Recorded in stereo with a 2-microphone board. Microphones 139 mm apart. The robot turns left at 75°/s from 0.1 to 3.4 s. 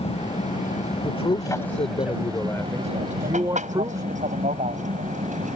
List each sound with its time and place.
0.0 s an aircraft: 50° left (ahead or behind); by 5.6 s 60° right (ahead or behind)
1.0 s a man speaking: 140° left; by 4.0 s 40° right